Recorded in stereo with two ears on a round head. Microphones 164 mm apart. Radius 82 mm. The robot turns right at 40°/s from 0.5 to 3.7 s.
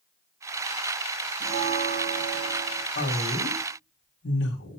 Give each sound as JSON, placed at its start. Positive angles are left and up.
{"t": 1.4, "sound": "a bell", "azimuth_deg": -105, "distance_m": 3.5}
{"t": 3.0, "sound": "a woman speaking", "azimuth_deg": 50, "distance_m": 3.0}